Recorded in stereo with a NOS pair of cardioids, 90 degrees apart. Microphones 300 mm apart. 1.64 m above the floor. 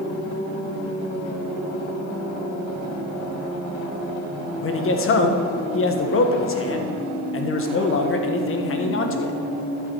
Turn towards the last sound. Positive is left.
turn(degrees=45)